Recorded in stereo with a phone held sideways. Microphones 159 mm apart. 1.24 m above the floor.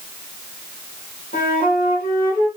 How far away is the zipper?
No zipper in this recording.